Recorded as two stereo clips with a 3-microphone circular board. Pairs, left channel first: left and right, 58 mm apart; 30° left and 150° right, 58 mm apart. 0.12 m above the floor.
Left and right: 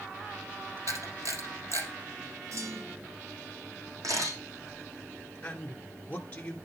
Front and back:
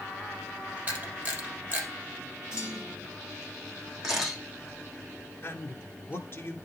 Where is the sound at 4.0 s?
70° right, 4.5 m.